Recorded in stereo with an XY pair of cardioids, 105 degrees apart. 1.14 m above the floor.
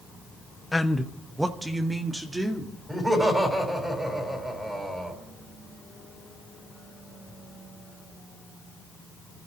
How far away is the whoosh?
I don't hear a whoosh.